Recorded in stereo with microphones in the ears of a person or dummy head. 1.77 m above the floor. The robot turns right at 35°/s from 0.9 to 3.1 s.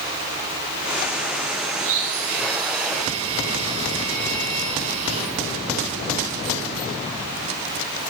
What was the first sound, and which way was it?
A blender, 85° right.